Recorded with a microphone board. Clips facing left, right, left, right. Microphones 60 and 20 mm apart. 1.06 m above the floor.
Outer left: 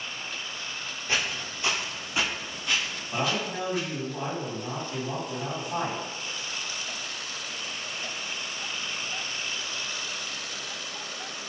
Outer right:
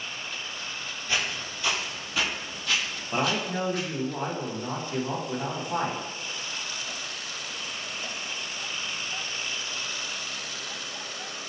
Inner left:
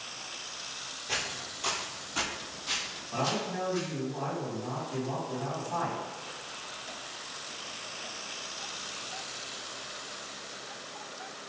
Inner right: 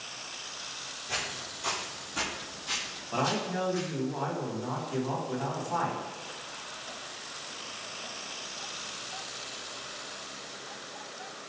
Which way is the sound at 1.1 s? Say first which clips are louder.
Even, inner left 1 dB; 25° left (ahead or behind).